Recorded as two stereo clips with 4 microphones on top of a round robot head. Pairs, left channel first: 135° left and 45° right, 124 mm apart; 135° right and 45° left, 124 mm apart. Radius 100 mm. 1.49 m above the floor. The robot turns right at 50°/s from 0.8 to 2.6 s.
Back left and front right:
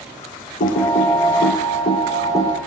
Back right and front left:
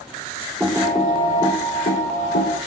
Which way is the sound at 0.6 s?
125° left.